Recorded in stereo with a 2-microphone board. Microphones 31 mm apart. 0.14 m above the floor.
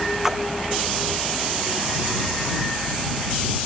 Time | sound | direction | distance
0.2 | a splash | 10° right (ahead or behind) | ?